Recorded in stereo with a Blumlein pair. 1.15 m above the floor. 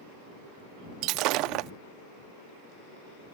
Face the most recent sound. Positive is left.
turn(degrees=-40)